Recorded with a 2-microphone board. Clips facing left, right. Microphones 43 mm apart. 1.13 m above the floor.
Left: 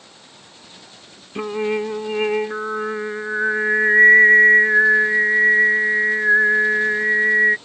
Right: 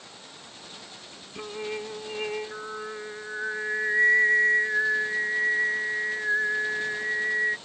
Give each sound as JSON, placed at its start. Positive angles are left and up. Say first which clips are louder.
{"t": 1.4, "sound": "singing", "louder": "left 12 dB", "side_deg": 40}